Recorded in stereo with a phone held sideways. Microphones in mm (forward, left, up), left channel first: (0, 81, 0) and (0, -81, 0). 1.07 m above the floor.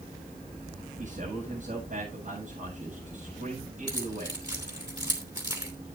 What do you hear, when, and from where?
1.0 s a man speaking: 55° right (ahead or behind), 7 m
3.9 s keys jangling: 25° right (ahead or behind), 3 m